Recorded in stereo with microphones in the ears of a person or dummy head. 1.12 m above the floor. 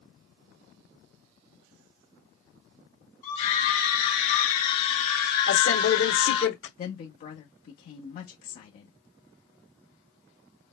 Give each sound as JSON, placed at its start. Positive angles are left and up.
{"t": 3.2, "sound": "a scream", "side_deg": 30, "distance_m": 3.0}
{"t": 5.5, "sound": "a man speaking", "side_deg": 70, "distance_m": 2.0}
{"t": 6.8, "sound": "a woman speaking", "side_deg": 45, "distance_m": 1.1}